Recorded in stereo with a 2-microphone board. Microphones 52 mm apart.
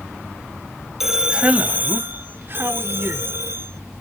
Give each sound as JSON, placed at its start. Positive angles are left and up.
{"t": 1.0, "sound": "a man speaking", "side_deg": -5}